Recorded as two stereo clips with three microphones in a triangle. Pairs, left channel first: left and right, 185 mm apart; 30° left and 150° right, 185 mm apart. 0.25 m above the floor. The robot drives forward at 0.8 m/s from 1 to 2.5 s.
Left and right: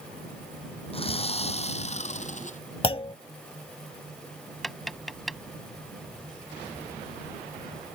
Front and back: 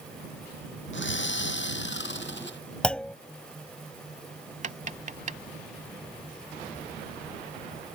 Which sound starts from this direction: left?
A clunk, at 2.8 s.